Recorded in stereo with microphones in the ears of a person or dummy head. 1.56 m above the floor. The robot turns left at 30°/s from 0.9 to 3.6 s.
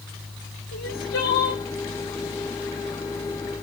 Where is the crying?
75° left (ahead or behind), 2.5 m; by 1.6 s 65° left (ahead or behind), 2.5 m.